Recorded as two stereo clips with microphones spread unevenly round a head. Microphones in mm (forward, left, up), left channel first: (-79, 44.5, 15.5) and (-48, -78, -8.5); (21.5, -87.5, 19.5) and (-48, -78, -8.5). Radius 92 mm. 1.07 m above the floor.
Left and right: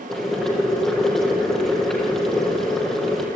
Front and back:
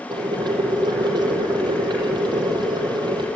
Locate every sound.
0.1 s boiling: 170° right, 6 m